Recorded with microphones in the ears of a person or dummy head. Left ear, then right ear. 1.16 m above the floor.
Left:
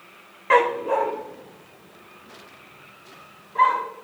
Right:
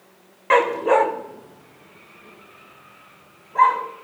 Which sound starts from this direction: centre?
A dog barking, at 0.5 s.